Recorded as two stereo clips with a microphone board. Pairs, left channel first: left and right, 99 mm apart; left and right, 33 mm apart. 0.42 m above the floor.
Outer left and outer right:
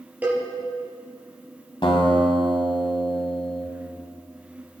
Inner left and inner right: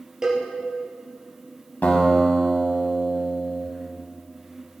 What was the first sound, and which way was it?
A cowbell, 20° right (ahead or behind).